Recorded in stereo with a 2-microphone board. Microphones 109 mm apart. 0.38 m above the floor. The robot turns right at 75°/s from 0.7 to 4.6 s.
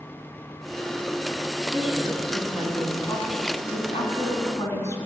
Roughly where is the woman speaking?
Right.